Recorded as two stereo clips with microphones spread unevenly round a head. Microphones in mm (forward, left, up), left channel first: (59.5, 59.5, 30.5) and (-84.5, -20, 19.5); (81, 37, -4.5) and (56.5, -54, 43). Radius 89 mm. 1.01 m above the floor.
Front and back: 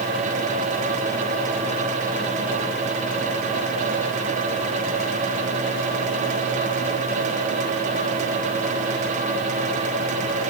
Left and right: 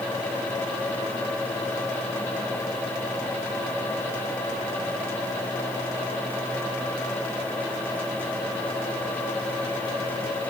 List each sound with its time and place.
Only background noise.